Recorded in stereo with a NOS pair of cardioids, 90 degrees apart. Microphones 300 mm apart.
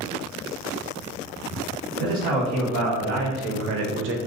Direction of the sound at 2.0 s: 70° right.